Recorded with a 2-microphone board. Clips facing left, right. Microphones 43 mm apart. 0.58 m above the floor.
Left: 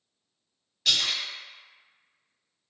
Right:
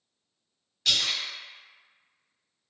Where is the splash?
5° left (ahead or behind), 1.6 m.